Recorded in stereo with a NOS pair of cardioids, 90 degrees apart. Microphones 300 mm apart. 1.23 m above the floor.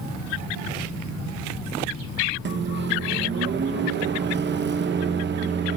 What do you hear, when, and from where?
2.5 s a microwave: 40° right, 0.7 m